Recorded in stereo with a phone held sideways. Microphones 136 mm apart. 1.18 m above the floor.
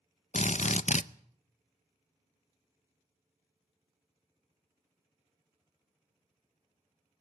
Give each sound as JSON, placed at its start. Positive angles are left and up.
{"t": 0.3, "sound": "a drill", "side_deg": 60, "distance_m": 0.5}